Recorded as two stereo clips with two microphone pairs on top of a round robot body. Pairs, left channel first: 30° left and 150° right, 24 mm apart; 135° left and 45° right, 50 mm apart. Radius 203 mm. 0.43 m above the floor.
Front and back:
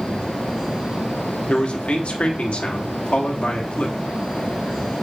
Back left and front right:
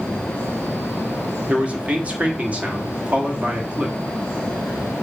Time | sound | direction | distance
1.5 | a man speaking | 20° left | 1.4 m